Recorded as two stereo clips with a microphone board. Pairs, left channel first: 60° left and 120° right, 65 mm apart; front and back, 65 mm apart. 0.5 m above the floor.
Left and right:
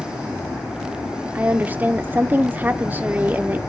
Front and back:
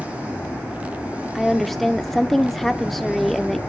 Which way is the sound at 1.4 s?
85° right.